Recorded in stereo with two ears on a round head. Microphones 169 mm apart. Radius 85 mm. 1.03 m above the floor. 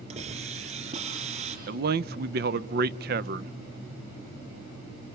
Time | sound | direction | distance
0.1 | a hiss | 35° right (ahead or behind) | 4.5 m
1.7 | a man speaking | 55° right (ahead or behind) | 0.7 m